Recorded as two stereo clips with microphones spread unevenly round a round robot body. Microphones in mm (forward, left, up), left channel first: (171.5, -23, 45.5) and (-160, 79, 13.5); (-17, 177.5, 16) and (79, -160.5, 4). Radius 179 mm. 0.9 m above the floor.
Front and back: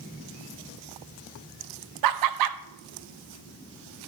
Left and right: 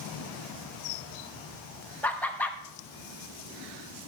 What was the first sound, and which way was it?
Laughter, 170° right.